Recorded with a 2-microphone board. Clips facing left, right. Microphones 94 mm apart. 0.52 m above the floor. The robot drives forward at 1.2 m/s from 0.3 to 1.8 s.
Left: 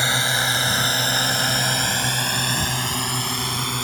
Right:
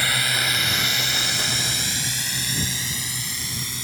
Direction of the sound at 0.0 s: 25° left (ahead or behind).